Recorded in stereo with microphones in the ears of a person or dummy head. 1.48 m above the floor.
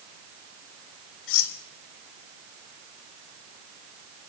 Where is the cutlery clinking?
75° left (ahead or behind), 2.5 m.